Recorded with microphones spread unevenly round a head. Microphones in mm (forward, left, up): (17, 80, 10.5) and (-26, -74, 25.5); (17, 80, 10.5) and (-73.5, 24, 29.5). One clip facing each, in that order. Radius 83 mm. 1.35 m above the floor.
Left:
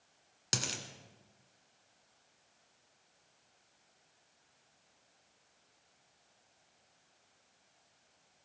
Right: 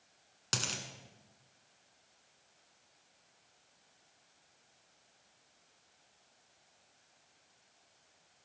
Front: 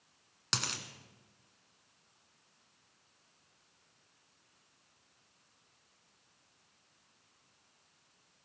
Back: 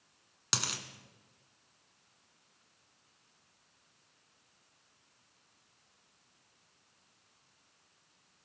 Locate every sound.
0.5 s a dropped coin: 150° left, 1.5 m